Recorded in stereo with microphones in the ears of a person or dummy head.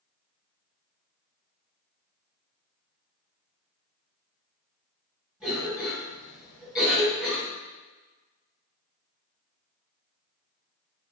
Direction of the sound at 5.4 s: 5° right (ahead or behind).